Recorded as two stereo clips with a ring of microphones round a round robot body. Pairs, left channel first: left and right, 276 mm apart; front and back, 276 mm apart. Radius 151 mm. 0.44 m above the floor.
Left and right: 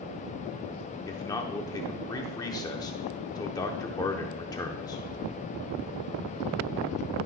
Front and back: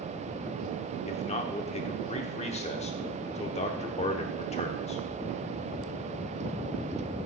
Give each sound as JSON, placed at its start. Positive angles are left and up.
{"t": 1.1, "sound": "a man speaking", "azimuth_deg": 30, "distance_m": 0.9}